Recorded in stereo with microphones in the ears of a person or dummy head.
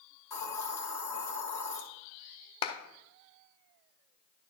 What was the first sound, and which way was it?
A hiss, 15° left (ahead or behind).